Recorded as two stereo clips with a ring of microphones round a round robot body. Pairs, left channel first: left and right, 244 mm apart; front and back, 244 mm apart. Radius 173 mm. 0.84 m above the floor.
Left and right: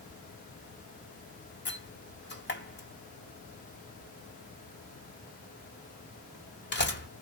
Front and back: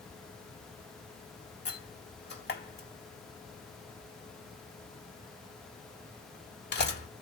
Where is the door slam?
45° left, 2 m.